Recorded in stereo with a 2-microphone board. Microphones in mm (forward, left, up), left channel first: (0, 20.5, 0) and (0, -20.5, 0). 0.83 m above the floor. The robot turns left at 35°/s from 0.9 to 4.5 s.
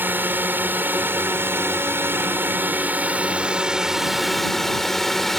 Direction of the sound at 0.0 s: 60° right.